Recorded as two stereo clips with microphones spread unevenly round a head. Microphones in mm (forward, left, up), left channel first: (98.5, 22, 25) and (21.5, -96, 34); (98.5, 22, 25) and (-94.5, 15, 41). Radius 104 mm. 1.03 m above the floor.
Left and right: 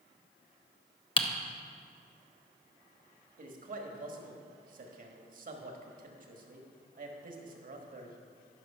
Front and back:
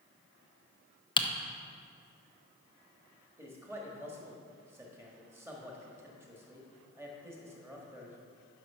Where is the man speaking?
100° right, 1.5 m.